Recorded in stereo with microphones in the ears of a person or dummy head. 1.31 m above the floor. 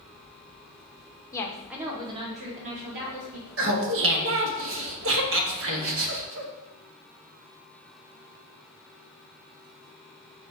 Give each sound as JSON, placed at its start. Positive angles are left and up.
{"t": 1.3, "sound": "a woman speaking", "side_deg": 25, "distance_m": 0.5}
{"t": 3.6, "sound": "laughter", "side_deg": -65, "distance_m": 0.8}